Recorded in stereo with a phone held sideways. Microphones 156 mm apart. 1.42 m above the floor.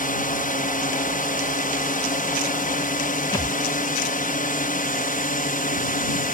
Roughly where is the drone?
Left.